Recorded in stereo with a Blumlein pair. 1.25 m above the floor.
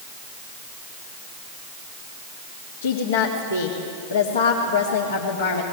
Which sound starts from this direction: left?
A woman speaking, at 2.8 s.